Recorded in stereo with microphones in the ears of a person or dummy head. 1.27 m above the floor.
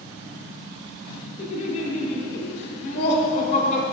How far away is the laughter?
About 1.6 m.